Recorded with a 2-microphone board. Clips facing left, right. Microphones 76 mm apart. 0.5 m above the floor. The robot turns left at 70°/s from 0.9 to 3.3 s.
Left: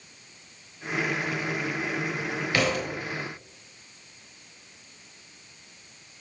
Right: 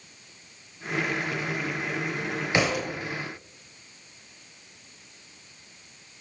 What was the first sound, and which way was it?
A thud, 25° right (ahead or behind).